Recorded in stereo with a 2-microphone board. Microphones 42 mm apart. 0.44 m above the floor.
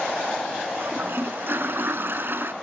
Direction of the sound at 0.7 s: 55° right (ahead or behind).